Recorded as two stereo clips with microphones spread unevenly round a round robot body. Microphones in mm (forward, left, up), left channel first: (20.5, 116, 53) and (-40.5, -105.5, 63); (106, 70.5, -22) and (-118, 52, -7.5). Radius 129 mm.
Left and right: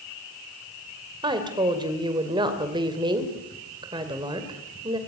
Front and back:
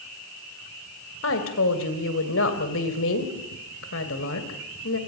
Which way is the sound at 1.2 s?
35° right.